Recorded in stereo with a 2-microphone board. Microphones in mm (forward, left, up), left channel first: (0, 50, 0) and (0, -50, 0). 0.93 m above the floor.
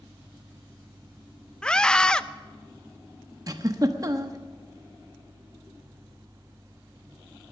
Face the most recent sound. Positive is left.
turn(degrees=-40)  # may be behind; listen again after turning